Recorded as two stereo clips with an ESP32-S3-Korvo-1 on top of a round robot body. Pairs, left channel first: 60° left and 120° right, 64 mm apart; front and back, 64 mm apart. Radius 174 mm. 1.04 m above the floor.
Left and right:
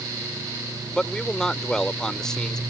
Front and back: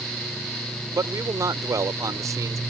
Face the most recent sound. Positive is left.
turn(degrees=140)